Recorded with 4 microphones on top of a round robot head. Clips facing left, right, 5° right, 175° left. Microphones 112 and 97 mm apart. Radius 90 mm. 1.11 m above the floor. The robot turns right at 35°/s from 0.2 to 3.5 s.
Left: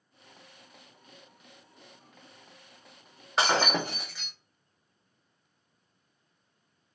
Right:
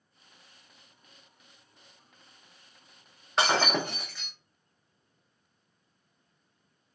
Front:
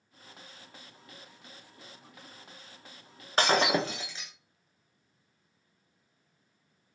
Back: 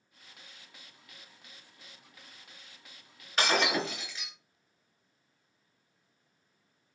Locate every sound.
3.4 s breaking glass: straight ahead, 0.6 m; by 4.3 s 5° left, 0.6 m